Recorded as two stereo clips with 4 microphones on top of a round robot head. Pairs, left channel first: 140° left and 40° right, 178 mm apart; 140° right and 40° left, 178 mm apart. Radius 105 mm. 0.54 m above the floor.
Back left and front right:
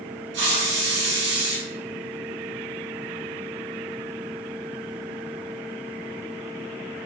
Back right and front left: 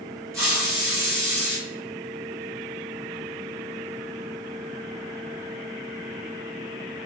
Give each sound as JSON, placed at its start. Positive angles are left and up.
{"t": 0.3, "sound": "a hiss", "azimuth_deg": -35, "distance_m": 2.0}